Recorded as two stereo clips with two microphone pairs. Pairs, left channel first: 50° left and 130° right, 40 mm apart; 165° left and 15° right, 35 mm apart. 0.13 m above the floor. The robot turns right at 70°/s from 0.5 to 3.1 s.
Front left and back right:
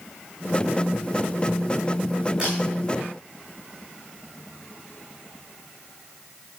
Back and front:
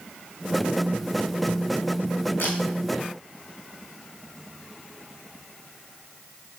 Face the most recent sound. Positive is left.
turn(degrees=-145)